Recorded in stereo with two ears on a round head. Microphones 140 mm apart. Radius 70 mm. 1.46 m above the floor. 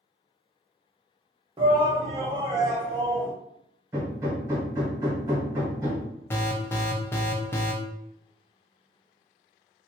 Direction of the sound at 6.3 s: 15° left (ahead or behind).